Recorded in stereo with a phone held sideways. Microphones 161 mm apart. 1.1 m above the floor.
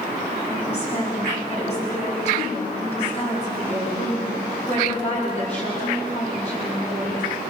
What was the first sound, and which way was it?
A woman speaking, 45° left (ahead or behind).